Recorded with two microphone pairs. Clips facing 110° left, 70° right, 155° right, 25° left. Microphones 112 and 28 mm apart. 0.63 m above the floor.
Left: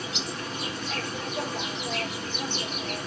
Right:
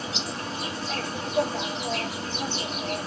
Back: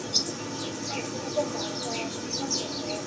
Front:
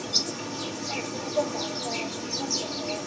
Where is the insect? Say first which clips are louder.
Right 1 dB, front 1 dB; 40° right, 1.9 m.